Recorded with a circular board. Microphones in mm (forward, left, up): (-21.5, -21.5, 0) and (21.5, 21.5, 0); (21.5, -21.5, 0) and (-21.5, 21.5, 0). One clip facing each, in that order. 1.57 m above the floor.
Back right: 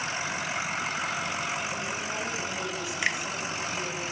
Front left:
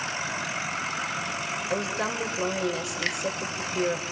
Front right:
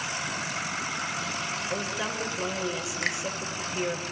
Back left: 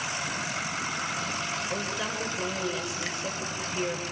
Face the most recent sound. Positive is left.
turn(degrees=-65)